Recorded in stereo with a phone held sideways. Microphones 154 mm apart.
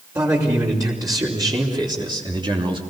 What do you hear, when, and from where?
0.1 s a man speaking: 25° right (ahead or behind), 4.5 m; by 2.8 s 35° right (ahead or behind), 3 m